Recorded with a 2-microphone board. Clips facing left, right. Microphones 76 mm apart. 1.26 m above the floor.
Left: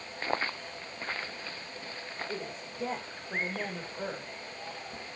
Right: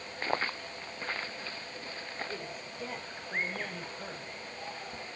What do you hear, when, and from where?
2.3 s a woman speaking: 20° left (ahead or behind), 5 m; by 4.3 s 30° left (ahead or behind), 5 m